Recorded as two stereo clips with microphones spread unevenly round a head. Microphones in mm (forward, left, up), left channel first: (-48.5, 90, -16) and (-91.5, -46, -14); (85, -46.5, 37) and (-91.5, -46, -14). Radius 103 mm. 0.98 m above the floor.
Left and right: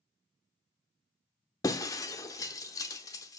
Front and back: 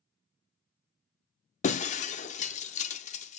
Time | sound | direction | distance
1.6 | breaking glass | 5° left | 0.7 m